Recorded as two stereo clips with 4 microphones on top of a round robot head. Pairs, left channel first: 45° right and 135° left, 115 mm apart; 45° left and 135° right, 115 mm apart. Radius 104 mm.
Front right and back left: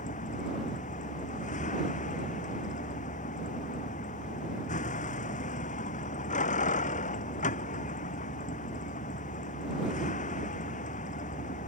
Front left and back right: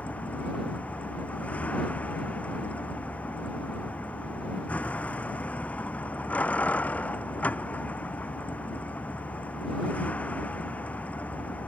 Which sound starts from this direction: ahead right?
A vehicle, at 0.0 s.